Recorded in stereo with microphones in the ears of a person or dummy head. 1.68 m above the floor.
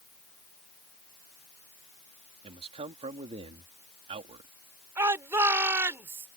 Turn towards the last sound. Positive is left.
turn(degrees=-15)  # may be behind; listen again after turning